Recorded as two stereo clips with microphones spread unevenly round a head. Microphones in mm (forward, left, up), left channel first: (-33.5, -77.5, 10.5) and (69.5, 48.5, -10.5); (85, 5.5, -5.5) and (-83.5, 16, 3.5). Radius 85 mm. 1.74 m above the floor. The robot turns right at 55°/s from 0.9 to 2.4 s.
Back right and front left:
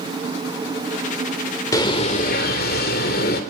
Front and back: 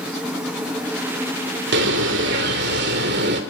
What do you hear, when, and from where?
1.7 s a bird: 160° left, 3 m; by 3.4 s 160° right, 3 m